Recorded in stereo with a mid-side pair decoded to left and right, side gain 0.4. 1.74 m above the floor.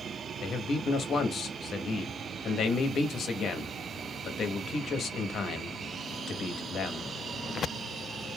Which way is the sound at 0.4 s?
65° left.